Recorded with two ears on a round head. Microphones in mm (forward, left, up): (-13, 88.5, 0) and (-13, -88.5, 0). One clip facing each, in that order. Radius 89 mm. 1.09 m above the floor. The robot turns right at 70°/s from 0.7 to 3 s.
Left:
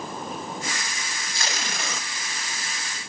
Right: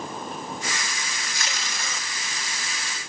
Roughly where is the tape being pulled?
Ahead left.